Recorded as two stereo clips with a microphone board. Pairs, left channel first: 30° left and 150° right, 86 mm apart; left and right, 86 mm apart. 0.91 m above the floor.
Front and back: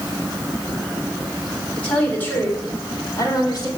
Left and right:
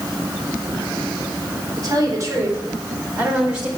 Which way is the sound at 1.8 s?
50° right.